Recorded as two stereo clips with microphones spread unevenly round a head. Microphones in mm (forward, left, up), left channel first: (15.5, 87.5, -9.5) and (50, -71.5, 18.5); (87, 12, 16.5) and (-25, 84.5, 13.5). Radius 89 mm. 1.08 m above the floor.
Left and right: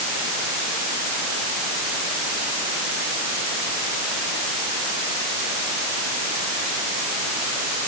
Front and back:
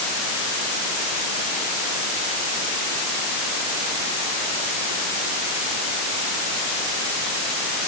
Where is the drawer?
I don't hear a drawer.